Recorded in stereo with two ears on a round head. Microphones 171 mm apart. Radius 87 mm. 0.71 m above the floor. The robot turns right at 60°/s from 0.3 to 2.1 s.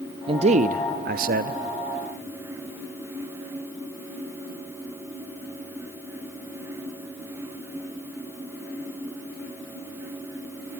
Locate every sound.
0.3 s a man speaking: 140° right, 0.7 m; by 1.6 s 60° right, 0.7 m